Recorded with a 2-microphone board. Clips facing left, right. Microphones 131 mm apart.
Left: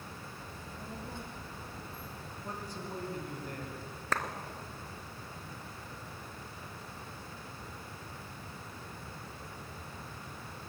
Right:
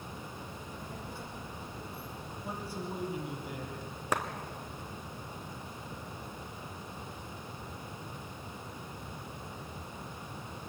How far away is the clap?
About 1.6 m.